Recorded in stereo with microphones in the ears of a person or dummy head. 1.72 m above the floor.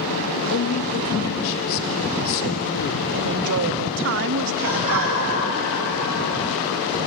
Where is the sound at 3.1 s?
65° right (ahead or behind), 1.0 m.